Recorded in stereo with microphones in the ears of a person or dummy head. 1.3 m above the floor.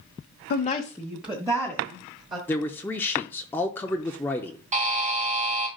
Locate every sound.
0.5 s a woman speaking: 55° left (ahead or behind), 0.5 m; by 2.4 s 25° right (ahead or behind), 2.5 m
2.5 s a man speaking: 10° left (ahead or behind), 0.5 m
4.7 s a buzzer: 35° right (ahead or behind), 0.7 m